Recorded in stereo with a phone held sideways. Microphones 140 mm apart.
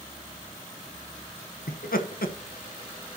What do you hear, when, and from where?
1.7 s laughter: 85° left, 1.1 m